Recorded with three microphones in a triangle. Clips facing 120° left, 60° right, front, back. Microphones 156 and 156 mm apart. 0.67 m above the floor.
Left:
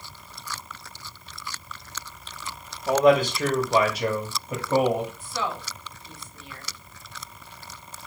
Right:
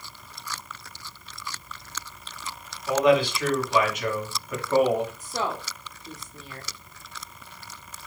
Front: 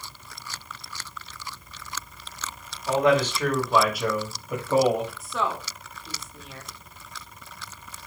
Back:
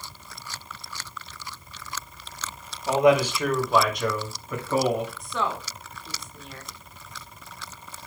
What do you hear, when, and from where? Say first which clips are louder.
2.9 s a man speaking: left 2 dB, back 2 dB; 115° left, 1.5 m; by 5.1 s 50° left, 1.6 m
5.2 s a woman speaking: right 1 dB, even; 90° right, 1.2 m